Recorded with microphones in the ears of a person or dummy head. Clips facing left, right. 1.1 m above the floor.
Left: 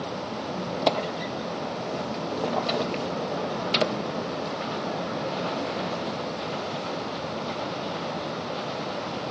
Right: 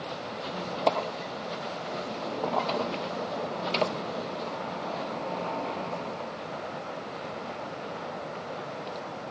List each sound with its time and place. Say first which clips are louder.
0.4 s a squeak: left 2 dB; 15° left (ahead or behind), 0.5 m